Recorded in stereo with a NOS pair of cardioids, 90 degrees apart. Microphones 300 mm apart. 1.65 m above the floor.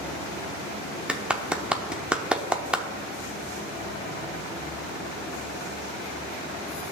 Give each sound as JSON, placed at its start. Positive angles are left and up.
{"t": 1.1, "sound": "a clap", "azimuth_deg": -5, "distance_m": 0.7}